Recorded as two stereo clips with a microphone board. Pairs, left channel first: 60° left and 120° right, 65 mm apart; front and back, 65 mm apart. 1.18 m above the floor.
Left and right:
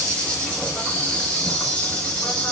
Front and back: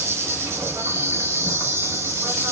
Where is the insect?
135° left, 6.5 m.